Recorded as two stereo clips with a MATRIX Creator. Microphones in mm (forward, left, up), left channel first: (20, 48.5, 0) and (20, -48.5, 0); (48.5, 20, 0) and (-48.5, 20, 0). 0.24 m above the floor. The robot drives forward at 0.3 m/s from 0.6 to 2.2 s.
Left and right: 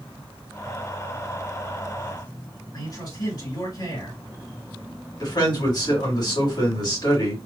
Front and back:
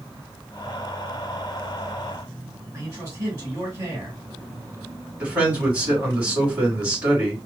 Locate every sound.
2.7 s a man speaking: 120° left, 2.5 m
5.2 s a man speaking: 110° left, 2 m